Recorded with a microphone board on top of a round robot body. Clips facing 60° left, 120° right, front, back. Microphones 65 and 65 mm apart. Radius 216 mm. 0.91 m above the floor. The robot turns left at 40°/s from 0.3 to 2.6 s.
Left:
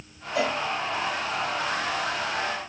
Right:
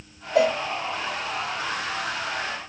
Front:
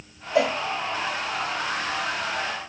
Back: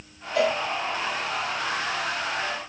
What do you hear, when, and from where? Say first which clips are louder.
0.3 s a cowbell: right 6 dB, front 1 dB; 65° right, 0.5 m; by 0.6 s 75° right, 0.5 m